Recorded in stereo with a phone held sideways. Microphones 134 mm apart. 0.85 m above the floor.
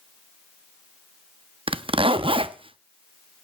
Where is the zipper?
40° right (ahead or behind), 0.5 m.